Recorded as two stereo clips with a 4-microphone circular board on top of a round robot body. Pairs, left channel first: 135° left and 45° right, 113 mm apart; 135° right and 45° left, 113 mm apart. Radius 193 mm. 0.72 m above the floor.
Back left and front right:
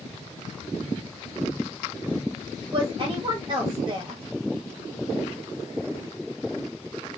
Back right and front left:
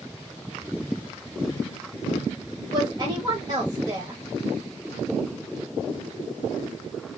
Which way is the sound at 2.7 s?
Straight ahead.